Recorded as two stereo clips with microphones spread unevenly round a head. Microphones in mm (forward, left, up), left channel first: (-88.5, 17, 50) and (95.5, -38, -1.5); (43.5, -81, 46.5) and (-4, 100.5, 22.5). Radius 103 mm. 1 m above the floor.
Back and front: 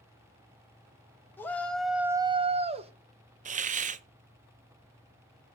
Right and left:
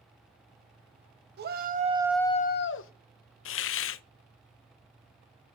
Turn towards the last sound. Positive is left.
turn(degrees=-60)